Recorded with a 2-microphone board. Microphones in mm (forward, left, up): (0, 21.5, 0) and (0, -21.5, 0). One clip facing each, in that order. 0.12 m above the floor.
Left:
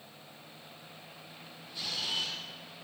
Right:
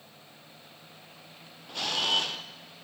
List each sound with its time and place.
1.7 s a camera shutter: 70° right (ahead or behind), 1.2 m